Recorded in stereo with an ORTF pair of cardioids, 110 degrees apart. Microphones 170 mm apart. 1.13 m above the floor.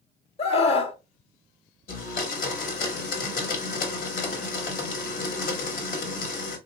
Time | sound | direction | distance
0.4 | a scream | 40° left | 1.1 m
1.9 | a blender | 65° left | 1.5 m